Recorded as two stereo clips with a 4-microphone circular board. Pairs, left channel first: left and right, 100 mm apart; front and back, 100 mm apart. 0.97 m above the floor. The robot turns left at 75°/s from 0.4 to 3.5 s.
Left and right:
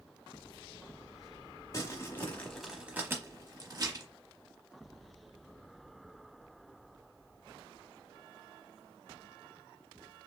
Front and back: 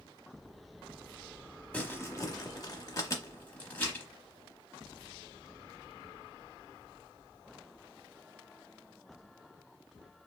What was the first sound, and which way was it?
Crumpling, 65° left.